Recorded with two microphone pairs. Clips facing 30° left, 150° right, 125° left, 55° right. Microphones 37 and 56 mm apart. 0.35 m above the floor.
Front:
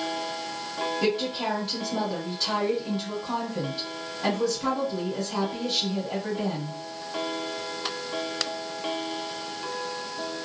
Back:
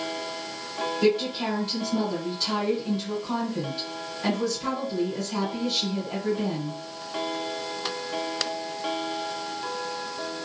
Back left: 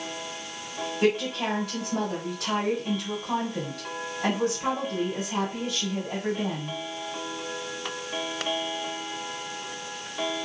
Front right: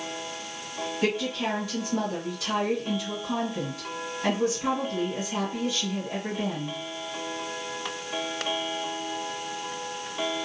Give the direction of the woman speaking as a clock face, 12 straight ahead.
9 o'clock.